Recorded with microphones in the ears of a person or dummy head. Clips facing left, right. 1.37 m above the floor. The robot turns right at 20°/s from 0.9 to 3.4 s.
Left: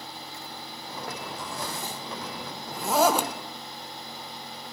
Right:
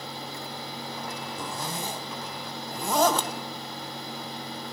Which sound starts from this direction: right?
A zipper, at 1.4 s.